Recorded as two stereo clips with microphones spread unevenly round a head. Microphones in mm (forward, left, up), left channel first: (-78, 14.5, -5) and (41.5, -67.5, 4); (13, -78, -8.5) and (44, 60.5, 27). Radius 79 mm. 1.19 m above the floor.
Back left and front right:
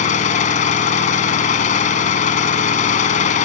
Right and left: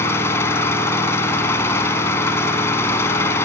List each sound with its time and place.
0.0 s an engine running: straight behind, 3 m